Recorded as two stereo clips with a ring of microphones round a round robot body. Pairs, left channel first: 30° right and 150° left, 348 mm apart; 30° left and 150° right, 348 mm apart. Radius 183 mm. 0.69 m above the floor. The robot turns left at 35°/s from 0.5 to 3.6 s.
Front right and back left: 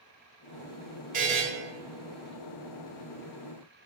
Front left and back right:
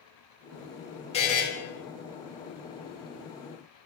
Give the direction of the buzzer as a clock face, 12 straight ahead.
9 o'clock.